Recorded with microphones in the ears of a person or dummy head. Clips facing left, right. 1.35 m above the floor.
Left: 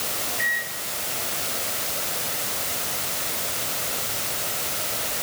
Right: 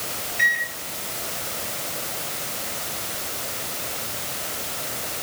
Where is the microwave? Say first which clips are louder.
Right 2 dB; 70° right (ahead or behind), 2.5 m.